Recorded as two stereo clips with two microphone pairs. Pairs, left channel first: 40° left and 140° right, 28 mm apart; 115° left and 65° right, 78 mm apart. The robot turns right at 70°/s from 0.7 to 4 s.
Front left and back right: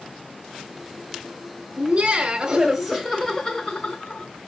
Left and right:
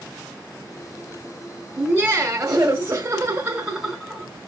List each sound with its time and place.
1.8 s laughter: 125° right, 1.7 m; by 4.3 s 30° left, 1.7 m